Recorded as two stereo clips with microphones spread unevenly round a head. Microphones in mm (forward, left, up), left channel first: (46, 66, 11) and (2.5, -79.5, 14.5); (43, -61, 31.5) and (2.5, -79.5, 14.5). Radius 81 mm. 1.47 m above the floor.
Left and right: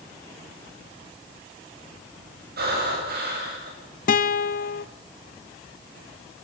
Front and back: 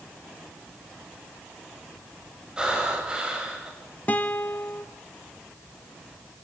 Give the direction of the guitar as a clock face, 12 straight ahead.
10 o'clock.